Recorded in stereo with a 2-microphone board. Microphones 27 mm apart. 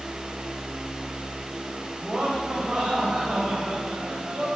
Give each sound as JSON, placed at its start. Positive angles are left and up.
{"t": 2.0, "sound": "laughter", "side_deg": -20, "distance_m": 7.5}